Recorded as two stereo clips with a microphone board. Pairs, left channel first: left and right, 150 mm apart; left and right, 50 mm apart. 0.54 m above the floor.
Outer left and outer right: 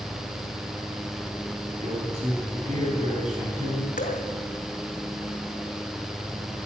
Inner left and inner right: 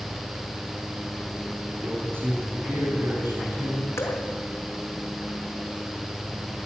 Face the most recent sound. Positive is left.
turn(degrees=75)  # may be behind; listen again after turning